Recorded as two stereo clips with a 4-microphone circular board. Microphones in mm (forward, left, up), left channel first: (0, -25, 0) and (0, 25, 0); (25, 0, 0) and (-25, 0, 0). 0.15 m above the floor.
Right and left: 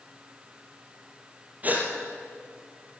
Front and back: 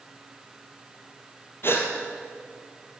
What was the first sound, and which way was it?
A gasp, 35° left.